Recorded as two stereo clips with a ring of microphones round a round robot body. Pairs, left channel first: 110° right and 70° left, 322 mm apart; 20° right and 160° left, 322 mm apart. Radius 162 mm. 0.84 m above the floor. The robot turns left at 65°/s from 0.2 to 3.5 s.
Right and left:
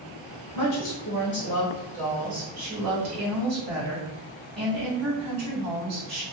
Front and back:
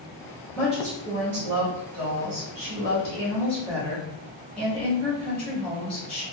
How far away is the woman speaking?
About 1.1 m.